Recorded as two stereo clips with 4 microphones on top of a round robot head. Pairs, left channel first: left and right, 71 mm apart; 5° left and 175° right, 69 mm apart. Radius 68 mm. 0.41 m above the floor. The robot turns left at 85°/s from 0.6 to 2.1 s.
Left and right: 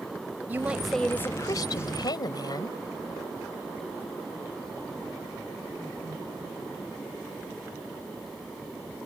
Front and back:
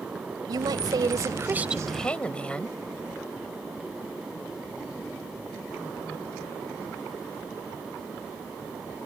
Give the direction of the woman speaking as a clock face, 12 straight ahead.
5 o'clock.